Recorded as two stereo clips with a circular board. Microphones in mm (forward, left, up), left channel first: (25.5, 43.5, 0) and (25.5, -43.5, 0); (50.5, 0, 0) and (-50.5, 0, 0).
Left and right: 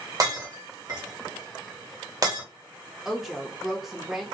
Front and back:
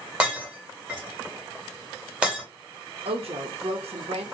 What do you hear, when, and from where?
0.2 s breaking glass: 105° right, 1.7 m
3.0 s a woman speaking: 175° right, 0.7 m